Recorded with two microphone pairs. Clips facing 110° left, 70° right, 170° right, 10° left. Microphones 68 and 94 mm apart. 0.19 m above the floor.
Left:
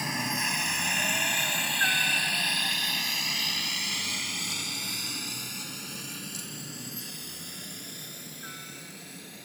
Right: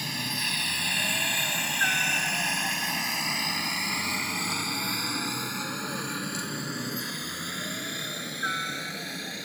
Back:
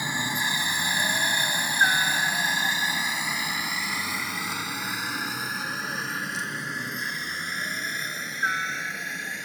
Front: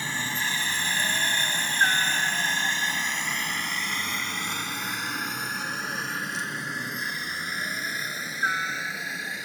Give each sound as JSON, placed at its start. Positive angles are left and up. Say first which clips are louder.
{"t": 0.0, "sound": "a helicopter", "louder": "left 3 dB, back 2 dB", "azimuth_deg": 135}